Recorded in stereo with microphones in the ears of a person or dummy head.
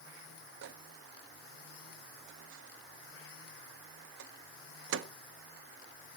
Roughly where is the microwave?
Right.